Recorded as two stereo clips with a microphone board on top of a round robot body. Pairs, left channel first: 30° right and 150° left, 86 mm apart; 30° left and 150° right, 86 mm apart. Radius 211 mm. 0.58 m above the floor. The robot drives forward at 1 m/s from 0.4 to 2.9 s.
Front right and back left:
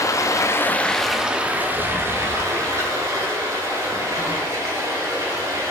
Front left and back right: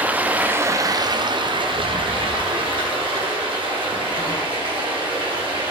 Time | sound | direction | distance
0.0 | running water | 80° right | 1.1 m